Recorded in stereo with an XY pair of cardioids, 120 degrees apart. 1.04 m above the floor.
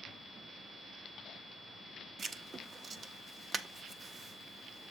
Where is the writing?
35° right, 0.6 m.